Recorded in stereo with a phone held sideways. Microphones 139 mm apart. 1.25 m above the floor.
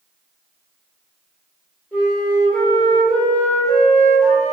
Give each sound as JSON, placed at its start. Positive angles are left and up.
{"t": 1.9, "sound": "a flute", "side_deg": 10, "distance_m": 1.7}